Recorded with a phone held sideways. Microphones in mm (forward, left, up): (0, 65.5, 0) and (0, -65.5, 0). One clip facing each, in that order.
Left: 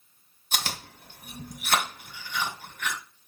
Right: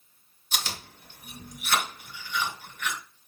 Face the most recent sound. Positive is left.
turn(degrees=50)  # may be behind; listen again after turning